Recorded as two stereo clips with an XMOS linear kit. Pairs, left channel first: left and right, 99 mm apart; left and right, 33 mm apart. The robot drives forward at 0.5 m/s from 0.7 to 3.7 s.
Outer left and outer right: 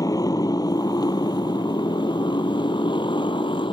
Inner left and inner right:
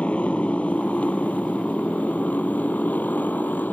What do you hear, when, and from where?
0.0 s a motorcycle: 40° left (ahead or behind); by 3.7 s 60° left (ahead or behind)